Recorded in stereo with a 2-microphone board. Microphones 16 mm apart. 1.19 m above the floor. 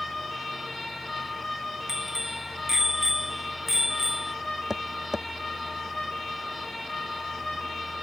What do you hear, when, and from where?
1.9 s a bicycle bell: 25° right (ahead or behind); by 4.3 s 20° right (ahead or behind)
4.7 s tapping: 25° right (ahead or behind)